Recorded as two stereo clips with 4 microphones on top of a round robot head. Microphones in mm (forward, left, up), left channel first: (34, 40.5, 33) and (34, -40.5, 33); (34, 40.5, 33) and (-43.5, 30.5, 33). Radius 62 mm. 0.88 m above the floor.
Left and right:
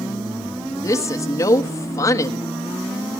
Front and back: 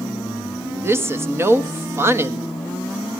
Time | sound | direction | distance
0.8 | a woman speaking | 135° left | 1.2 m